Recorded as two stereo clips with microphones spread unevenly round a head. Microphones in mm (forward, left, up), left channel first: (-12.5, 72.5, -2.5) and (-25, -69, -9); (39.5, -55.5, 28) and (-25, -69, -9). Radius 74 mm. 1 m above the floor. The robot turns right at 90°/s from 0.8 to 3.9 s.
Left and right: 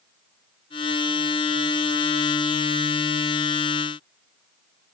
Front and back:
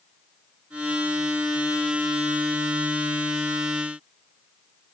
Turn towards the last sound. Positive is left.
No sound to turn to.